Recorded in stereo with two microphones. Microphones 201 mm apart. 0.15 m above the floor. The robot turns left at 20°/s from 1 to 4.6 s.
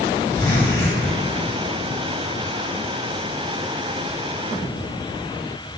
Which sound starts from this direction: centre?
A zipper, at 0.3 s.